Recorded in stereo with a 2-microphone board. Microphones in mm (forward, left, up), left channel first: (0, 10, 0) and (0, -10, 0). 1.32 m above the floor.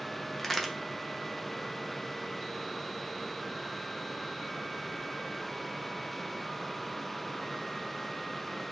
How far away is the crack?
About 0.5 m.